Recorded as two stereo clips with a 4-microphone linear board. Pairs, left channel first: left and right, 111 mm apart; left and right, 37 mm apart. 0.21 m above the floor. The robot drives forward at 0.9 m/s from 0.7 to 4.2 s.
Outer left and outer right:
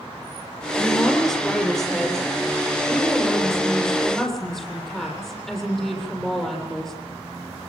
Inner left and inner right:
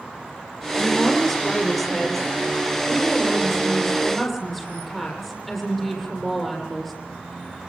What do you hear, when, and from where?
0.8 s a woman speaking: centre (ahead or behind), 5.5 m